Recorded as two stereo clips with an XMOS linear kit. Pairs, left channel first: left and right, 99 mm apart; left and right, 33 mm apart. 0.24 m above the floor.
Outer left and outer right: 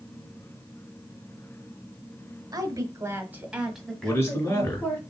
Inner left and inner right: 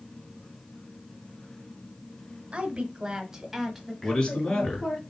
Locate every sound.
2.5 s a woman speaking: 40° right (ahead or behind), 1.2 m; by 5.0 s 20° left (ahead or behind), 2 m
4.0 s a man speaking: 25° left (ahead or behind), 2.0 m